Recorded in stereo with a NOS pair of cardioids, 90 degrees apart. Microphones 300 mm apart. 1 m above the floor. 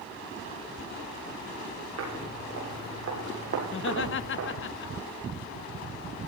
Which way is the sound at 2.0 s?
55° right.